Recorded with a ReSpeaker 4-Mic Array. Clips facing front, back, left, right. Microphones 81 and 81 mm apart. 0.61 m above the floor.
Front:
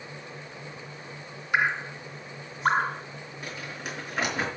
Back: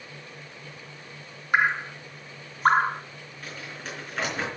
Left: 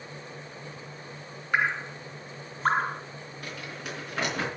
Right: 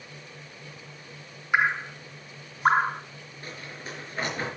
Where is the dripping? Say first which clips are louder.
Back 2 dB, right 3 dB; 165° right, 1.3 m.